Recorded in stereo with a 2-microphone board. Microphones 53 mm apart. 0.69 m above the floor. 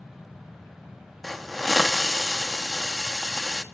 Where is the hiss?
Centre (ahead or behind), 0.9 m.